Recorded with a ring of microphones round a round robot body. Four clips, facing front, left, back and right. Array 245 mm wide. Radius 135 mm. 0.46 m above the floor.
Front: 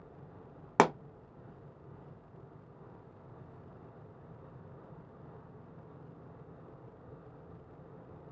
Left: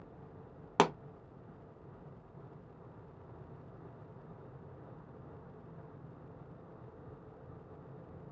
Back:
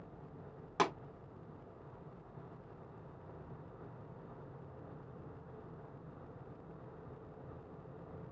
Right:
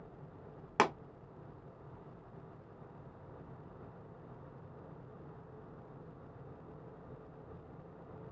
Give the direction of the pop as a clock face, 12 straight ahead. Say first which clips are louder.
Left 2 dB, front 8 dB; 11 o'clock.